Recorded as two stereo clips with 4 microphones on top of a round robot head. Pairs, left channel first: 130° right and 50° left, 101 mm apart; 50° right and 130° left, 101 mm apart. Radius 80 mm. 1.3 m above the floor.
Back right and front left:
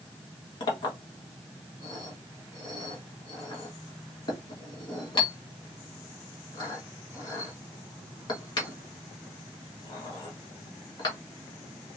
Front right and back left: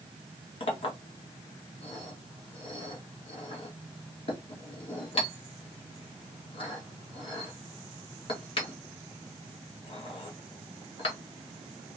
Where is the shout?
I don't hear a shout.